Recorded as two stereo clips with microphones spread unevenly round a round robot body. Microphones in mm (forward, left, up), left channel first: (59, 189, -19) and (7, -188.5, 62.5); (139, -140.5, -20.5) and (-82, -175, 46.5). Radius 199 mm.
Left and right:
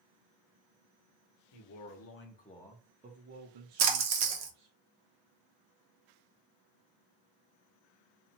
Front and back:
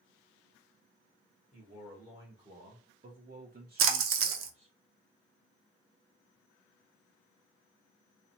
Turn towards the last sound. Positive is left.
turn(degrees=-150)